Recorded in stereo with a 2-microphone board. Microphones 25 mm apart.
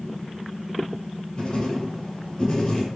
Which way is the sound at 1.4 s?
30° left (ahead or behind).